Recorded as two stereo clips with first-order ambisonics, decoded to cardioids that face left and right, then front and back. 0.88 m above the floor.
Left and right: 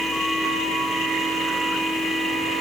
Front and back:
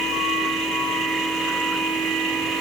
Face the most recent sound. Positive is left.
No sound to turn to.